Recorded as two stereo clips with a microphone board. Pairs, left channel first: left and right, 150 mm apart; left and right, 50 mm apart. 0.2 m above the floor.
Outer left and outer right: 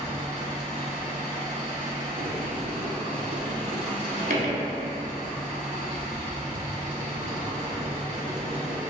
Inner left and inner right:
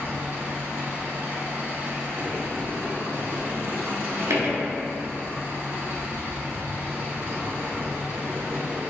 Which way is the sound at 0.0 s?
45° right (ahead or behind).